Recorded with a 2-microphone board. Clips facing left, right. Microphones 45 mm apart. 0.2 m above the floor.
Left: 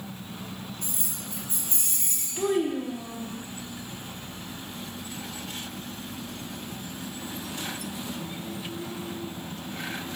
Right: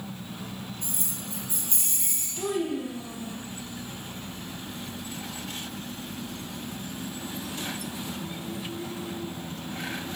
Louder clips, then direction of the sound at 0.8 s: Right 1 dB; 30° right (ahead or behind).